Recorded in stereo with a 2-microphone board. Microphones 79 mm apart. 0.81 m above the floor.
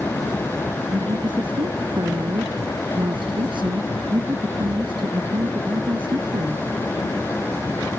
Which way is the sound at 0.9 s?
80° right.